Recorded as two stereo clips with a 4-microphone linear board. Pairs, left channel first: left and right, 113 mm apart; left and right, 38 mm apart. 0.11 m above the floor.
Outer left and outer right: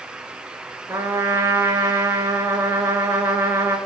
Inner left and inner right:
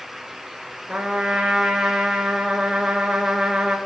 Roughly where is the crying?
I don't hear crying.